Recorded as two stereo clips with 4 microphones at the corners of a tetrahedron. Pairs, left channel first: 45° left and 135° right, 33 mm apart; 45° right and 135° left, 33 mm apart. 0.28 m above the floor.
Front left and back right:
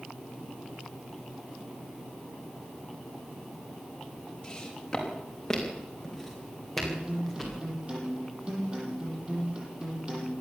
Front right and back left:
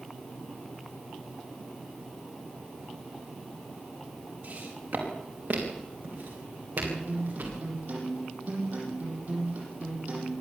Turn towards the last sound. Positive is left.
turn(degrees=160)